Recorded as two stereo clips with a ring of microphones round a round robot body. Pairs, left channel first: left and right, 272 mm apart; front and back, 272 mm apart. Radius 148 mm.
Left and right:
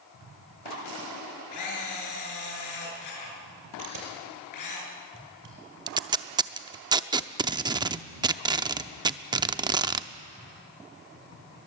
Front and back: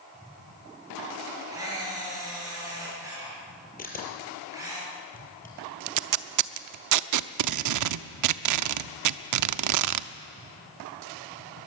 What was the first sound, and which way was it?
A camera shutter, 100° left.